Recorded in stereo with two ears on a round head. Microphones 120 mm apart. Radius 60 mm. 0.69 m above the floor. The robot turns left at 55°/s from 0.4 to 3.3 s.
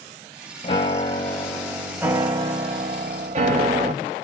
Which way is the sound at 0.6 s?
55° left.